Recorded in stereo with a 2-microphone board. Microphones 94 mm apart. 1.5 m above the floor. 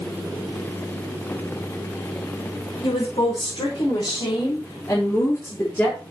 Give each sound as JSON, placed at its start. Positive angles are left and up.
{"t": 2.8, "sound": "a woman speaking", "side_deg": 70, "distance_m": 5.0}